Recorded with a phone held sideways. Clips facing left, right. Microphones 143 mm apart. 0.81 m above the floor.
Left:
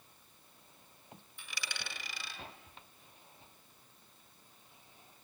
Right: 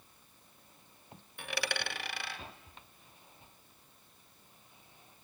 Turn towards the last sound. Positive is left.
turn(degrees=-65)  # may be behind; listen again after turning